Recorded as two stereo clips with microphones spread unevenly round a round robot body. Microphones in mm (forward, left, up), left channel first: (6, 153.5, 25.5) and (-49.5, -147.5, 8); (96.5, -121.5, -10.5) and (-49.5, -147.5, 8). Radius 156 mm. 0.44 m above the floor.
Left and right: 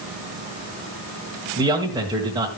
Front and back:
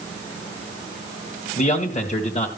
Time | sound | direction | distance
1.6 | a man speaking | 25° right | 2 m